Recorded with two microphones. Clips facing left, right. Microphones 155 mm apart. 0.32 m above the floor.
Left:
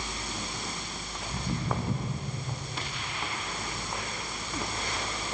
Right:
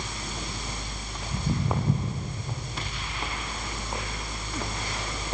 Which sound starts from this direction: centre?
Footsteps, at 1.3 s.